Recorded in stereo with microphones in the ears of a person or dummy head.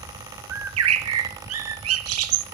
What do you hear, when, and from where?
0.5 s a bird: 75° right (ahead or behind), 1.2 m